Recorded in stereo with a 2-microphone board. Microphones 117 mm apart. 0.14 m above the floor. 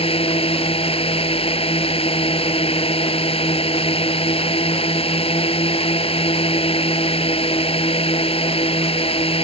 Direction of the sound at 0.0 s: 60° left (ahead or behind).